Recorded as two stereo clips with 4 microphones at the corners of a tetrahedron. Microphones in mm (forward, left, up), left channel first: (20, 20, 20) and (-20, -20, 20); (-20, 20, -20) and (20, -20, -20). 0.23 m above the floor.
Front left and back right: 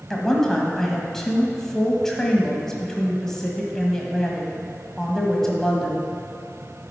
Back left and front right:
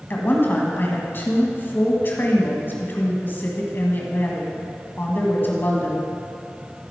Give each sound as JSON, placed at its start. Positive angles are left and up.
{"t": 0.1, "sound": "a woman speaking", "azimuth_deg": 125, "distance_m": 1.3}